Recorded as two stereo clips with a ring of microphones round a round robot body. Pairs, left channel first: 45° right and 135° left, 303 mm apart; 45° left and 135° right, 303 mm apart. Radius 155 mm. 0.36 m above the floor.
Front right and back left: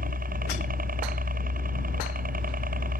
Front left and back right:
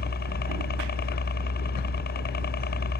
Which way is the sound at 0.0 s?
85° left.